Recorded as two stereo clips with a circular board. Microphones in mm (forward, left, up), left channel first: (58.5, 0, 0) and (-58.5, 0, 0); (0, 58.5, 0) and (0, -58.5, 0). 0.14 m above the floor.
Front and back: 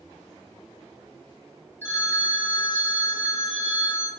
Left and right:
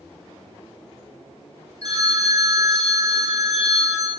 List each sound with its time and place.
1.8 s a phone ringing: 60° right, 0.7 m